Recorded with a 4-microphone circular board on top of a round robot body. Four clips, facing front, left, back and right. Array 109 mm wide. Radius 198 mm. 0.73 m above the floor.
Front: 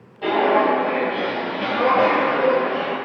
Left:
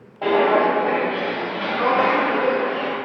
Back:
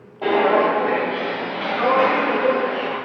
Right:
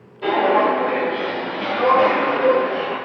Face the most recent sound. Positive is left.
turn(degrees=-35)